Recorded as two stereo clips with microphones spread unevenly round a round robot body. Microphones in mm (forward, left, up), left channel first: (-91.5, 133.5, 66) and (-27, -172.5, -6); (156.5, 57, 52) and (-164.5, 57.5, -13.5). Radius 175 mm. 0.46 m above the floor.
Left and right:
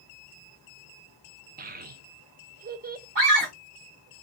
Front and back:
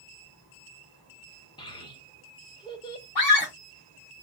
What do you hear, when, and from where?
1.6 s a child speaking: 85° right, 0.8 m
3.1 s a scream: 35° right, 2.5 m